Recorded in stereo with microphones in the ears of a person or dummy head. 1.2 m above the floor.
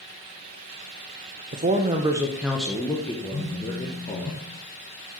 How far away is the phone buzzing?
About 1.4 m.